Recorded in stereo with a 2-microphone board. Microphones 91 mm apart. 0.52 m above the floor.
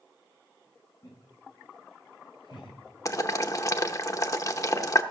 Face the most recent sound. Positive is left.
turn(degrees=40)  # may be behind; listen again after turning